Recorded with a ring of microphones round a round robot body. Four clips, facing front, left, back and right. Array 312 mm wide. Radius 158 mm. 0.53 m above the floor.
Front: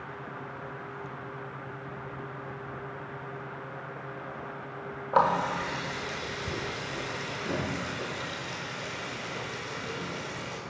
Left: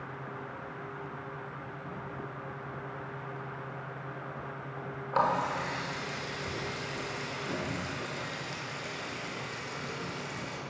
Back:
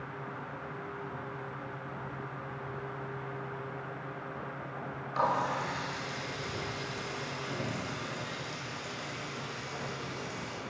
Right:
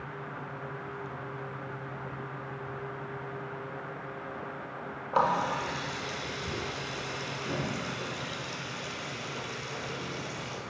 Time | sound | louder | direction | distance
5.1 | a running tap | right 2 dB, front 5 dB | 10° right | 1.5 m